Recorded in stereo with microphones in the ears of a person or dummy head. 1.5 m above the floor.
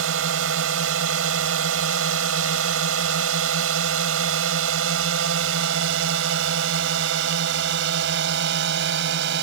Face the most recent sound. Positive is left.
turn(degrees=-65)  # may be behind; listen again after turning